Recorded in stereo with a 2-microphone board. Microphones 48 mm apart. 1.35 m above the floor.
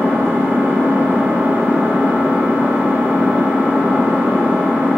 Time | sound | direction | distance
0.0 | an engine running | 40° right (ahead or behind) | 1.9 m